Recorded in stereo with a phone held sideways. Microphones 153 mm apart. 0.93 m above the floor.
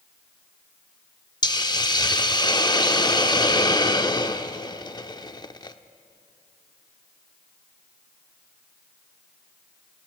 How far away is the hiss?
About 0.8 m.